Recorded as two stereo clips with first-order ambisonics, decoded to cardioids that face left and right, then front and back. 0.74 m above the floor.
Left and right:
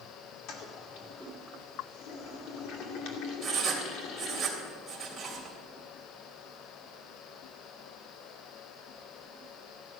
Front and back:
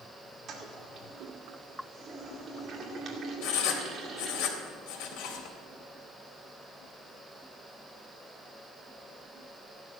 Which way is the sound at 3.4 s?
10° right.